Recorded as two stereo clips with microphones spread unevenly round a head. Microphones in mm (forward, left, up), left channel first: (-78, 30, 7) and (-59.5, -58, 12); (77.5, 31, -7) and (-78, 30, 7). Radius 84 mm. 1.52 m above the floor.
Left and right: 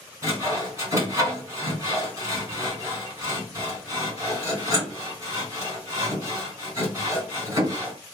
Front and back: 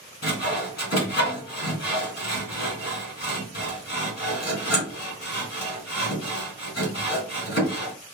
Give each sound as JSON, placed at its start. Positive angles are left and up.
{"t": 0.2, "sound": "sawing", "azimuth_deg": -15, "distance_m": 2.0}